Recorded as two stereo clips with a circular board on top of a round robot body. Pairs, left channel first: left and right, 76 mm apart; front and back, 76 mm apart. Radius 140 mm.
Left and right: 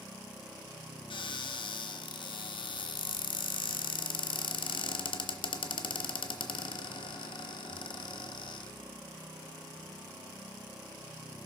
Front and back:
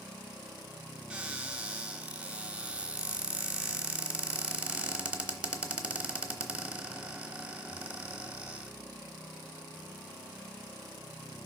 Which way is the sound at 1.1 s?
100° left.